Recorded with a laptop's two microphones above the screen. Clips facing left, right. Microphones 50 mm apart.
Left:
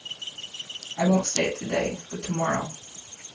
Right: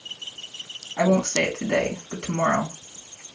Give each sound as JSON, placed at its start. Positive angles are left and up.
{"t": 1.0, "sound": "a woman speaking", "side_deg": -60, "distance_m": 3.0}